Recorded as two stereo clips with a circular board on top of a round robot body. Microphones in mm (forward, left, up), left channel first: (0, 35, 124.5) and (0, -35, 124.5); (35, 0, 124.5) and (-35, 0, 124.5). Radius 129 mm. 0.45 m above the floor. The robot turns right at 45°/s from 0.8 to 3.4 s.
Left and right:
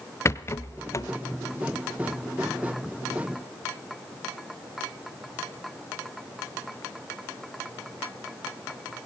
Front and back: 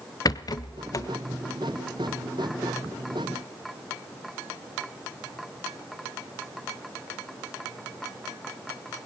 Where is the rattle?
35° left, 0.9 m; by 1.1 s 50° left, 0.9 m.